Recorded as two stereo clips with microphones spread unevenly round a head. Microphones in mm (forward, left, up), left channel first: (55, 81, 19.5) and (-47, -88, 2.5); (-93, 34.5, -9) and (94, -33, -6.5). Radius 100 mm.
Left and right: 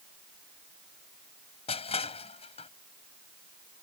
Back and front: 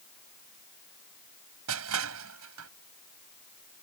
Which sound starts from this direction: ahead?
Crushing, at 1.7 s.